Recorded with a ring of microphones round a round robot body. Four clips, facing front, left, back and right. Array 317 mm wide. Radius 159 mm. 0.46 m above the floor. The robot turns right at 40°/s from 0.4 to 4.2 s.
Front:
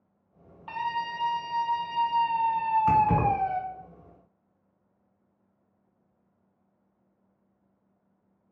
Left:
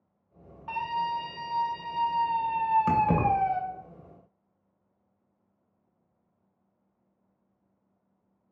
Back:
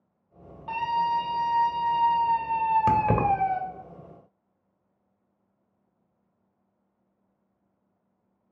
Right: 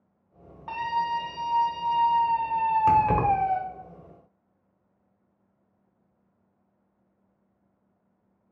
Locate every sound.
0.7 s a scream: 60° right, 1.4 m; by 3.6 s 55° left, 1.4 m
2.9 s keys jangling: straight behind, 1.0 m; by 3.3 s 165° right, 1.0 m